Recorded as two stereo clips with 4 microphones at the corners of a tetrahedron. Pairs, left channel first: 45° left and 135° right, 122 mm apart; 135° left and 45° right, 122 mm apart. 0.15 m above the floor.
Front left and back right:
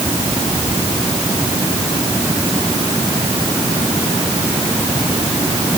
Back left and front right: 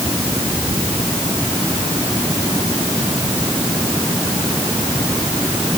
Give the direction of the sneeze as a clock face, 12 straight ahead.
No sneeze in this recording.